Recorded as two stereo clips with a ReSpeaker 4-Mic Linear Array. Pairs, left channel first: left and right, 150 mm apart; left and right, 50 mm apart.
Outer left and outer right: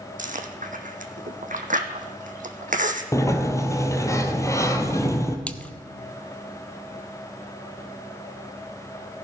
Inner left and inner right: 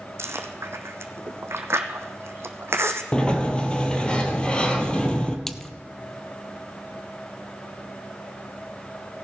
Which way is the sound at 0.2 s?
60° right (ahead or behind).